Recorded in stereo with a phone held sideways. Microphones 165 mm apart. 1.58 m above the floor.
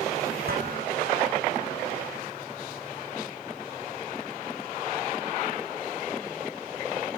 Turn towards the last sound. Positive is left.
turn(degrees=-80)